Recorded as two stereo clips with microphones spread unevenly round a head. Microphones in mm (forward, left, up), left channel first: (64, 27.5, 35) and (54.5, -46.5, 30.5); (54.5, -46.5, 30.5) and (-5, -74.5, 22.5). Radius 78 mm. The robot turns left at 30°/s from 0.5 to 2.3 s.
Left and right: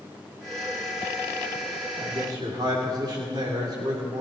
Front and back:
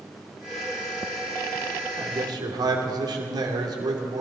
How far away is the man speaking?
About 2.5 m.